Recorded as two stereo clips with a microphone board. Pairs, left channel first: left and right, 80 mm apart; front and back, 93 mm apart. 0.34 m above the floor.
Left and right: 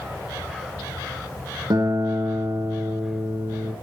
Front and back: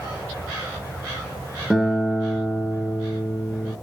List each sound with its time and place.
1.7 s a guitar: 100° right, 4 m